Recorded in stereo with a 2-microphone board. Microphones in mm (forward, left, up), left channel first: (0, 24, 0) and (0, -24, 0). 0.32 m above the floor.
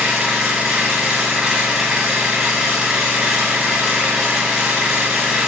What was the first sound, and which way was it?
An engine running, 15° right (ahead or behind).